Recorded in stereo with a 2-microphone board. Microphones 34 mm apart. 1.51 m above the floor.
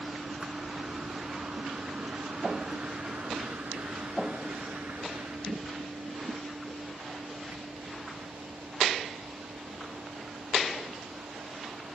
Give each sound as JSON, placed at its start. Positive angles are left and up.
{"t": 0.0, "sound": "a vehicle", "side_deg": -20}